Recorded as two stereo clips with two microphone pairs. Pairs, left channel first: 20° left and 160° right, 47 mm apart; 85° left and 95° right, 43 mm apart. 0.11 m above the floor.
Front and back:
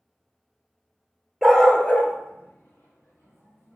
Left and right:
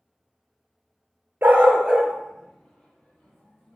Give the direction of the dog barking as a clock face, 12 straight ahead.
2 o'clock.